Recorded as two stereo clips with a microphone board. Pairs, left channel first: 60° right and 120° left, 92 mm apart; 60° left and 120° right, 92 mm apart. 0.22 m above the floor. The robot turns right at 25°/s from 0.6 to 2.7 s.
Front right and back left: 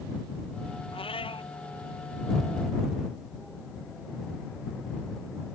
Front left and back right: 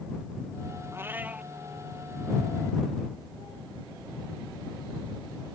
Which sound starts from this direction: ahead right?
A cat meowing, at 0.9 s.